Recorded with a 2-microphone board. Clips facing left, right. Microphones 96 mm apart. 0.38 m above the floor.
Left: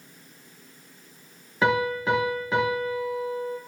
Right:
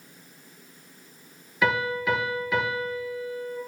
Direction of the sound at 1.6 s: 35° left (ahead or behind).